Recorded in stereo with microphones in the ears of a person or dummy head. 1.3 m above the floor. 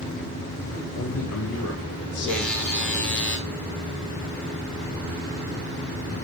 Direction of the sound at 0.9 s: 65° left (ahead or behind).